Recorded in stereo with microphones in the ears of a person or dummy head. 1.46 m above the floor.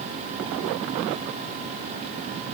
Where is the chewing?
No chewing in this recording.